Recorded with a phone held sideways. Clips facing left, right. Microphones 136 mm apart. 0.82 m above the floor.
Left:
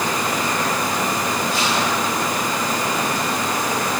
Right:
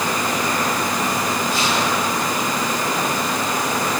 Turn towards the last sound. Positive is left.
No sound to turn to.